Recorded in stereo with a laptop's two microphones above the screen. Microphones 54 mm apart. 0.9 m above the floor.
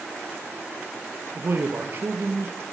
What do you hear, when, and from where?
1.4 s a man speaking: 50° right (ahead or behind), 1.1 m